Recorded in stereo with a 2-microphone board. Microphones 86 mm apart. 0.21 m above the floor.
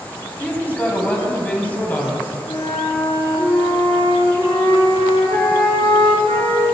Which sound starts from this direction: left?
A flute, at 2.5 s.